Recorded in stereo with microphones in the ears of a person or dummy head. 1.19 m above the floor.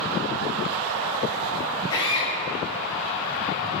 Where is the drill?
20° left (ahead or behind), 8 m.